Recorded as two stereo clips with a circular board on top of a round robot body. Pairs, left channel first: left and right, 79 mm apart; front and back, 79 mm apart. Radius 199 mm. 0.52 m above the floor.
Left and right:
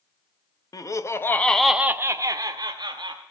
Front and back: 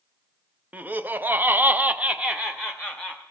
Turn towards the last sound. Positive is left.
turn(degrees=-90)